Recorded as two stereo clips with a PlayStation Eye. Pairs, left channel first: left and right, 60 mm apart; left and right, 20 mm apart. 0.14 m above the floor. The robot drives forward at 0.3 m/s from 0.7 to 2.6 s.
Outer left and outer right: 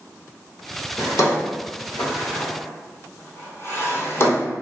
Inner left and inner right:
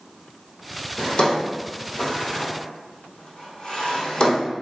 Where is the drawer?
60° left (ahead or behind), 1.0 m; by 4.5 s 40° left (ahead or behind), 1.3 m.